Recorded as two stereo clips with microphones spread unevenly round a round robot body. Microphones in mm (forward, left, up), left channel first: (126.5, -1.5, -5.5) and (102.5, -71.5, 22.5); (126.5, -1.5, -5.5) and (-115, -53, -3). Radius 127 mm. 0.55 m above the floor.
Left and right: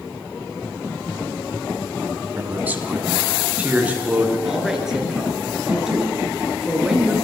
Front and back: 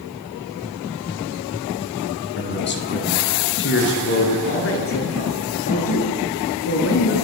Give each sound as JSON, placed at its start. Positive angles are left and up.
{"t": 2.4, "sound": "a man speaking", "azimuth_deg": -35, "distance_m": 5.0}
{"t": 4.5, "sound": "a woman speaking", "azimuth_deg": -25, "distance_m": 8.0}